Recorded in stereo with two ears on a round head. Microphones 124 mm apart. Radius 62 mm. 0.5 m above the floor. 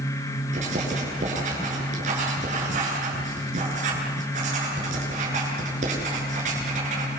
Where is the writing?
60° right (ahead or behind), 9 m.